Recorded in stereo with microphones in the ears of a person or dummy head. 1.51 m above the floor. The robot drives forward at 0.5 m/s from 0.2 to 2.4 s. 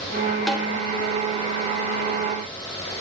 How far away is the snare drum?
About 3.5 m.